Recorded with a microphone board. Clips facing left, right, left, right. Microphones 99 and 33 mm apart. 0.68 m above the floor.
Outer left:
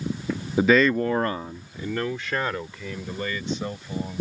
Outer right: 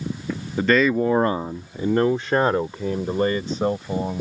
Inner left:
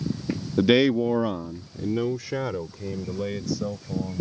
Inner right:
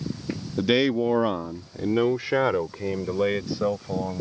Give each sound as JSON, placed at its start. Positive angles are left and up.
{"t": 0.6, "sound": "a man speaking", "side_deg": 15}